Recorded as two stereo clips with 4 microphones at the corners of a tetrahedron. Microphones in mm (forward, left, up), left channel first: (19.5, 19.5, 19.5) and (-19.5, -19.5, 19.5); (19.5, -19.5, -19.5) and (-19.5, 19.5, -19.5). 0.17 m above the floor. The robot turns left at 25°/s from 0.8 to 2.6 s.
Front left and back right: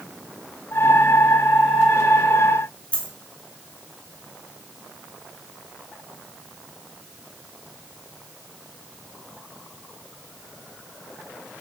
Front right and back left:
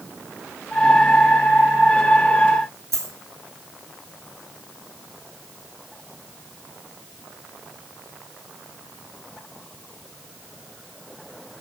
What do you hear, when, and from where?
2.9 s a dropped coin: 110° left, 1.0 m